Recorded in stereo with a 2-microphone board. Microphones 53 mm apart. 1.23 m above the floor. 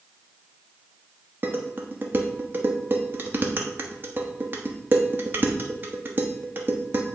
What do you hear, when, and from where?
1.4 s dishes clattering: 40° right (ahead or behind), 0.9 m